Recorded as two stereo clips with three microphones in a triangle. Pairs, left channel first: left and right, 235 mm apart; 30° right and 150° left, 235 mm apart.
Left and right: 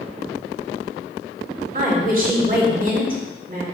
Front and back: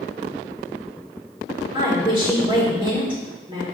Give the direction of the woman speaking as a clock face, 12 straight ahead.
5 o'clock.